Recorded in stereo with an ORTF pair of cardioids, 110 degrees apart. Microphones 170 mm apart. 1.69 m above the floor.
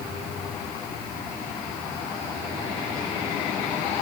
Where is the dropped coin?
I don't hear a dropped coin.